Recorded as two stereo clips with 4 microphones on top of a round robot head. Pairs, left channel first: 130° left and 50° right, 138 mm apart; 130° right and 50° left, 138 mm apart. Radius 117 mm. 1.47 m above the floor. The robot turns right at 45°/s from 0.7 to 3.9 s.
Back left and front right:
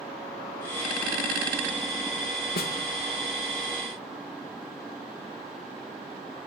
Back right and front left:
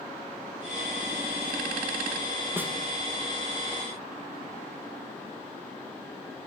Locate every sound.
2.6 s a snare drum: 125° left, 1.6 m; by 2.7 s 135° left, 1.6 m